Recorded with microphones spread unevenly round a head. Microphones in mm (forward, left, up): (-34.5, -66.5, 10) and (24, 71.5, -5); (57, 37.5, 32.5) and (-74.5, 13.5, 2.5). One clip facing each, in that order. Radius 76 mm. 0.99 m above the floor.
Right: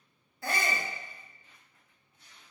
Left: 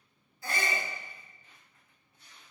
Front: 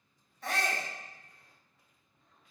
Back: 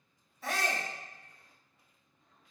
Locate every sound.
0.4 s a shout: 95° right, 0.7 m